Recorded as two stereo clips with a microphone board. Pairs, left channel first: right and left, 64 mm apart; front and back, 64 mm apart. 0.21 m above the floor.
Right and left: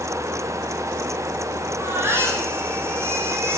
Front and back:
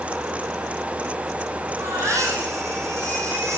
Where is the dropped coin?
I don't hear a dropped coin.